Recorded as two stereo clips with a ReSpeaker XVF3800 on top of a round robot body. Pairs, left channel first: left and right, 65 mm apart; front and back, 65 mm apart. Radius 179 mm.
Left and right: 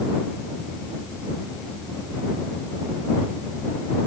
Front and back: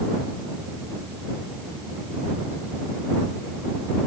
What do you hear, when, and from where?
Only background noise.